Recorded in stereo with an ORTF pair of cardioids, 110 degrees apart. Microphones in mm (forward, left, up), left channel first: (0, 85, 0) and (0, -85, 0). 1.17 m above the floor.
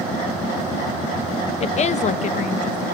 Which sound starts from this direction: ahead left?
A woman speaking, at 1.6 s.